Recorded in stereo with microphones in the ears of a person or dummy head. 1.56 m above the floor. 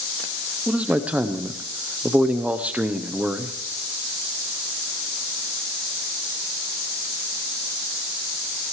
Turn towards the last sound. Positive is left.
turn(degrees=0)  # may be behind; listen again after turning